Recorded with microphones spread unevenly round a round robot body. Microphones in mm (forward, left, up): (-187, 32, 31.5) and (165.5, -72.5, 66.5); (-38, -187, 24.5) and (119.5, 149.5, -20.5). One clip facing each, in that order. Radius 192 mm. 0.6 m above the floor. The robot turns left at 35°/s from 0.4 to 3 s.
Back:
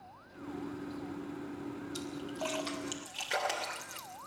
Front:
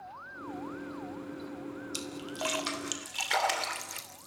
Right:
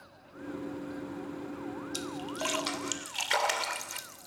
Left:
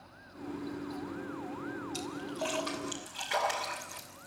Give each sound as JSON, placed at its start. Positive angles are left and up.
{"t": 1.9, "sound": "a splash", "azimuth_deg": -50, "distance_m": 3.0}